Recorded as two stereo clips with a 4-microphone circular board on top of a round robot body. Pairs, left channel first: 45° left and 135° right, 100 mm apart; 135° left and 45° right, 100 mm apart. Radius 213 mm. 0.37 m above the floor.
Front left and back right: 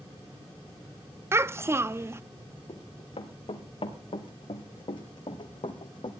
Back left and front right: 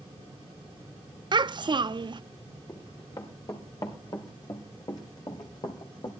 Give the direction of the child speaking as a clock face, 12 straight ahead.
2 o'clock.